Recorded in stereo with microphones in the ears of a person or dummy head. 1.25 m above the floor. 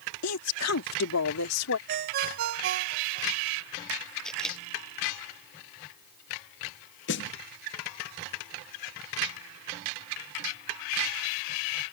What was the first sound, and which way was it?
A woman speaking, 85° left.